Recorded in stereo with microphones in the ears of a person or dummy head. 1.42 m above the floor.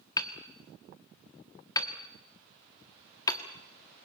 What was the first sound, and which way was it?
Hammering, 25° left (ahead or behind).